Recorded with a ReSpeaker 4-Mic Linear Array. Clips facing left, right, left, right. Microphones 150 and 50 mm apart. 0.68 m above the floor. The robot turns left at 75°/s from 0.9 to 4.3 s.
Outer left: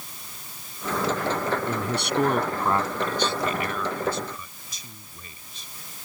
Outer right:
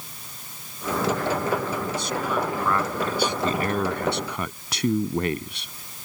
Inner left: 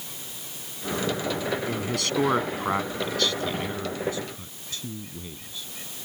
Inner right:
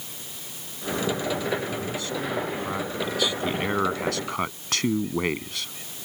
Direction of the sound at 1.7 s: 105° left.